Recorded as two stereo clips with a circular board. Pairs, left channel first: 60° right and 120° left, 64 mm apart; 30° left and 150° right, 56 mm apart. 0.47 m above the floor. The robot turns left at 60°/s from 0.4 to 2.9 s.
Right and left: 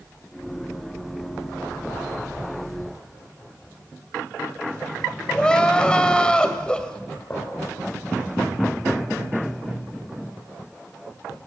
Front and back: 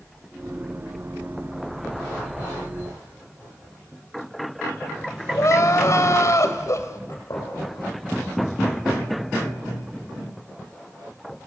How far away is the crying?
About 2.5 m.